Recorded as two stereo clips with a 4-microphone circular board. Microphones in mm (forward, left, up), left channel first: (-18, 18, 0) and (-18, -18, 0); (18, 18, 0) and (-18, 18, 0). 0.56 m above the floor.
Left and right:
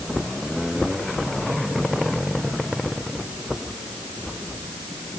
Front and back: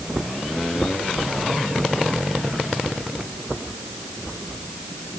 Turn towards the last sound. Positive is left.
No sound to turn to.